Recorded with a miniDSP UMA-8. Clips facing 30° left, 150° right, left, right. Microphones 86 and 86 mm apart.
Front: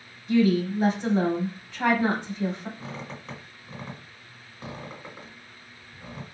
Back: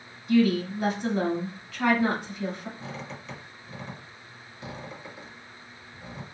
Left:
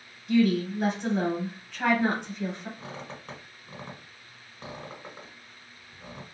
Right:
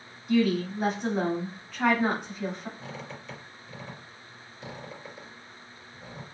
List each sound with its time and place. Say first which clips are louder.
0.3 s a woman speaking: front 1 dB, left 1 dB; 5° right, 1.8 m
2.8 s a squeak: even, even; 70° left, 1.6 m